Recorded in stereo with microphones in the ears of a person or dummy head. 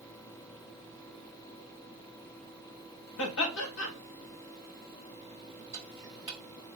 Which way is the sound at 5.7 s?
20° right (ahead or behind).